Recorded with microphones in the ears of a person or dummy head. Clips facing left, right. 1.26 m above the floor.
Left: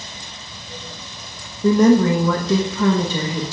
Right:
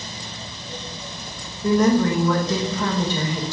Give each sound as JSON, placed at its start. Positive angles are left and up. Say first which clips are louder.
{"t": 1.6, "sound": "a woman speaking", "louder": "left 4 dB", "side_deg": 70, "distance_m": 1.0}